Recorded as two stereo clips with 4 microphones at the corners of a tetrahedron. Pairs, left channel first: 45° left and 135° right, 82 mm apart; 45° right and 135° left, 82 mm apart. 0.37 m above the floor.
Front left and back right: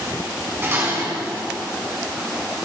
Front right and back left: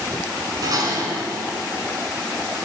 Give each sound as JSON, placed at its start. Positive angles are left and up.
{"t": 0.6, "sound": "dishes clattering", "azimuth_deg": 165, "distance_m": 2.5}